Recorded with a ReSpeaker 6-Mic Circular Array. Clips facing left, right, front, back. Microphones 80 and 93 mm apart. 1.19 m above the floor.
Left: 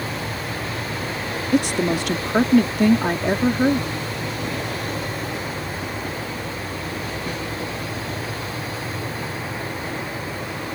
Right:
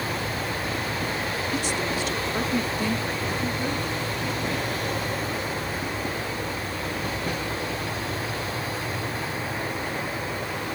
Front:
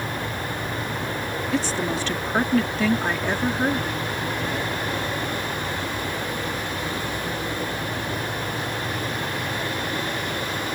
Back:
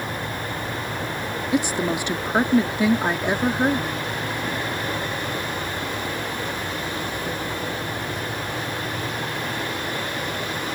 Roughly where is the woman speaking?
Left.